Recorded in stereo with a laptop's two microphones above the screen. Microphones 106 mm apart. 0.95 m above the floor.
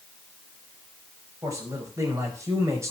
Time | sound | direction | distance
1.4 | a man speaking | 30° right (ahead or behind) | 5 m